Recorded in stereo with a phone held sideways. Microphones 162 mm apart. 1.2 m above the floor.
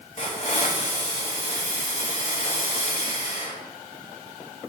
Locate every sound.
0.2 s a hiss: 45° left (ahead or behind), 3.5 m